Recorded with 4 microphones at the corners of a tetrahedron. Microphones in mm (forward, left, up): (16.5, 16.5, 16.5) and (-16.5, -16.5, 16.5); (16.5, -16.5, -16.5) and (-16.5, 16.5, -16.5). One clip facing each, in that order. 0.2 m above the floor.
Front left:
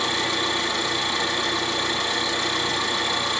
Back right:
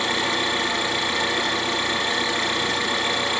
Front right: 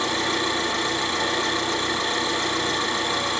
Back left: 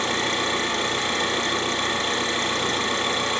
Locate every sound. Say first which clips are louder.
0.0 s an engine running: back right 1 dB, even; 170° left, 3 m